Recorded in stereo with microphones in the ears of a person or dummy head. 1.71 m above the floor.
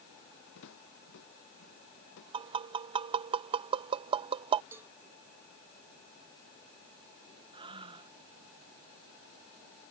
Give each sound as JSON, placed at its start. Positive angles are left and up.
{"t": 0.6, "sound": "footsteps", "side_deg": 70}
{"t": 2.3, "sound": "tapping", "side_deg": -25}
{"t": 4.7, "sound": "a cowbell", "side_deg": -5}
{"t": 7.5, "sound": "breathing", "side_deg": -25}